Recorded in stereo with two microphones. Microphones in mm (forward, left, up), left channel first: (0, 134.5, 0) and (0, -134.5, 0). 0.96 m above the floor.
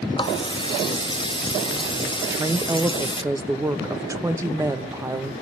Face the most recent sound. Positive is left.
turn(degrees=-10)  # may be behind; listen again after turning